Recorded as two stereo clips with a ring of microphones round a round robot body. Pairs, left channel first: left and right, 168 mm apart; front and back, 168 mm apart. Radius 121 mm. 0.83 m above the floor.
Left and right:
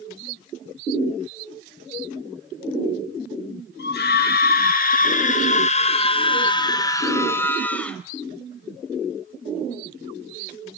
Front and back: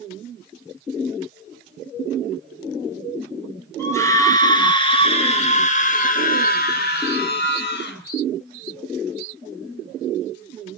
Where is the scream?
75° left, 4.5 m; by 8.0 s 5° left, 5 m.